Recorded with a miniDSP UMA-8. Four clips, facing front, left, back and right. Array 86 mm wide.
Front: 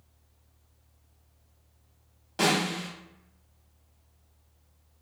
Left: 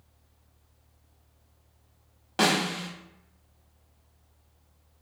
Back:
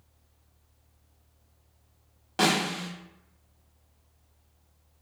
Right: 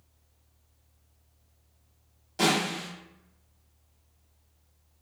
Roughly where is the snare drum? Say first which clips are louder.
Left 1 dB, back 1 dB; behind left.